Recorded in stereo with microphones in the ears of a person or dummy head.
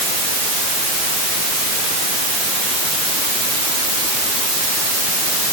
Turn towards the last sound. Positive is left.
No sound to turn to.